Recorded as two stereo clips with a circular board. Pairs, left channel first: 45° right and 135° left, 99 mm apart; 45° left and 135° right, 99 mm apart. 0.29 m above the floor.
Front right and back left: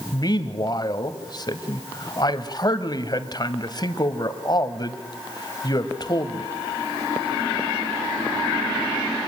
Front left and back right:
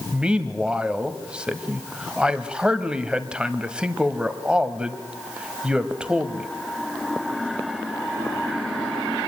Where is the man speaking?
60° right, 1.4 m.